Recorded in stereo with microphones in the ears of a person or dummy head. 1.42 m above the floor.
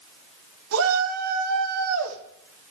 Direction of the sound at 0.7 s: 85° right.